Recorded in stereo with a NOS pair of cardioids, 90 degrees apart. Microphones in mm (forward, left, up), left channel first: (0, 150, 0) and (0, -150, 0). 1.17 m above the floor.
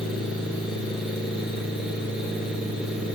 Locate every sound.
0.0 s a fan: 5° right, 1.4 m